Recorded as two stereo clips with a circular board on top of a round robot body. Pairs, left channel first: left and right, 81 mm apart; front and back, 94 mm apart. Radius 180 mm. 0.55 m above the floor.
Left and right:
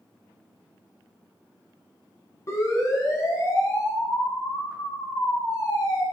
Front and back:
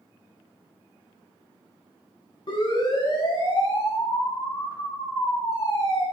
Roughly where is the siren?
Ahead left.